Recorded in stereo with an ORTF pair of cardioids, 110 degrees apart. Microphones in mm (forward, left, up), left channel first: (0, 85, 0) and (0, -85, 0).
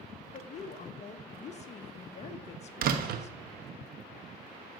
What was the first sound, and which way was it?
A woman speaking, 45° left.